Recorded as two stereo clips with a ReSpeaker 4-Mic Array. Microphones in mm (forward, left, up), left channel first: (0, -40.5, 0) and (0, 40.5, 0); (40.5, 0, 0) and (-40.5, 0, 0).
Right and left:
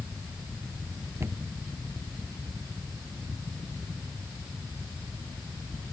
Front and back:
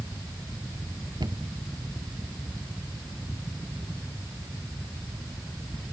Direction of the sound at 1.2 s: 150° left.